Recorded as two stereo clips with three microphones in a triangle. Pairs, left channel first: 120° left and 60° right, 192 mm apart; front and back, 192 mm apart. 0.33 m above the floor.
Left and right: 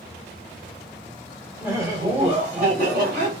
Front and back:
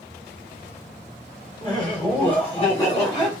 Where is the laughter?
5° left, 1.0 m; by 3.3 s 50° right, 1.7 m.